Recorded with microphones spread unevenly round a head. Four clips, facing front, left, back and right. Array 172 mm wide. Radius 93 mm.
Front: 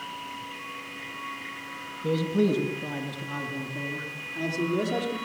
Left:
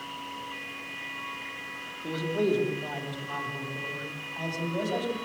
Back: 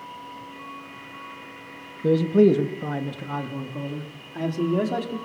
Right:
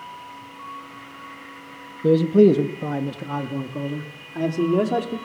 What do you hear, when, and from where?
2.0 s a man speaking: 115° right, 1.5 m; by 5.2 s 90° right, 3.5 m